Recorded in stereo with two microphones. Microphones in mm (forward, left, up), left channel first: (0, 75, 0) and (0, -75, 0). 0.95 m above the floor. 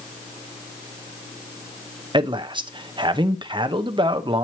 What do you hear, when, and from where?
2.1 s a man speaking: 30° right (ahead or behind), 0.6 m